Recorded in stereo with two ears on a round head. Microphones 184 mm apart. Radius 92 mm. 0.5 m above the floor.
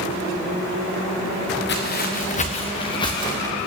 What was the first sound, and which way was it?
Footsteps, 55° left (ahead or behind).